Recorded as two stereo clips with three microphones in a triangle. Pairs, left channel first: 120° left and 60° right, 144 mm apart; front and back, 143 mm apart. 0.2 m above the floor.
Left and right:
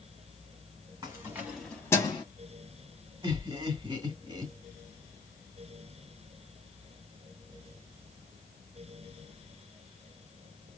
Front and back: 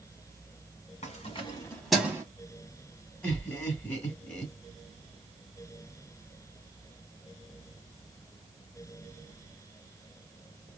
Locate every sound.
1.0 s keys jangling: straight ahead, 1.5 m; by 2.2 s 130° left, 1.2 m
3.2 s laughter: 75° right, 1.8 m